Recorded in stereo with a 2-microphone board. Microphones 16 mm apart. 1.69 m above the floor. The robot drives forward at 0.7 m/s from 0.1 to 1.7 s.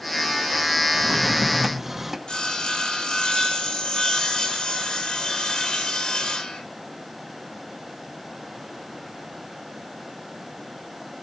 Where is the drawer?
20° right (ahead or behind), 1.0 m; by 2.2 s 15° right (ahead or behind), 1.2 m.